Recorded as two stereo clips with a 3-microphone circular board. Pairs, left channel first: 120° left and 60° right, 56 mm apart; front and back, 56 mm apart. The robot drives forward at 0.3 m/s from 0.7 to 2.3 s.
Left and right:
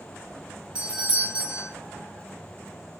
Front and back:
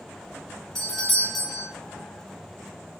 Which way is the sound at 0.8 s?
70° right.